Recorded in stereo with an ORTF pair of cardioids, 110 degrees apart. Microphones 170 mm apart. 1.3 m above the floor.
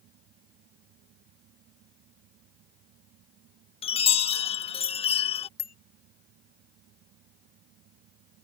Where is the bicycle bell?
65° left.